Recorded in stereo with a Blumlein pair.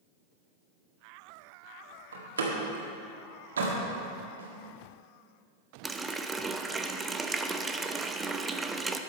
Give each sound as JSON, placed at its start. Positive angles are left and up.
{"t": 2.1, "sound": "a door slam", "azimuth_deg": -65, "distance_m": 2.0}
{"t": 4.4, "sound": "a snare drum", "azimuth_deg": -65, "distance_m": 1.9}
{"t": 5.8, "sound": "a running tap", "azimuth_deg": -10, "distance_m": 0.6}